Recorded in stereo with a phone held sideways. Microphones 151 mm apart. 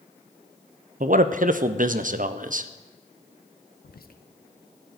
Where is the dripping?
No dripping in this recording.